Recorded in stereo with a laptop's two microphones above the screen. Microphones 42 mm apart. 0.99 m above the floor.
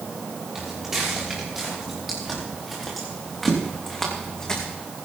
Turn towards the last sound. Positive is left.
turn(degrees=25)  # may be behind; listen again after turning